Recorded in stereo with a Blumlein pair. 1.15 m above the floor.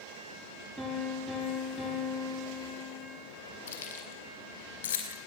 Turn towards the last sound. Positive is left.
turn(degrees=60)